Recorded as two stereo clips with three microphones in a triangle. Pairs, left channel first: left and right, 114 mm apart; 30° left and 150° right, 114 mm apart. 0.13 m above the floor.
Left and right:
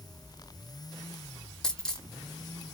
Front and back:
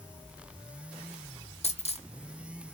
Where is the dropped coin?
5° left, 1.5 m.